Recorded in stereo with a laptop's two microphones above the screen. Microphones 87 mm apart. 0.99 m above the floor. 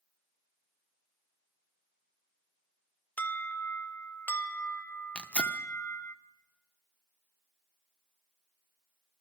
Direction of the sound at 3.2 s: 20° left (ahead or behind).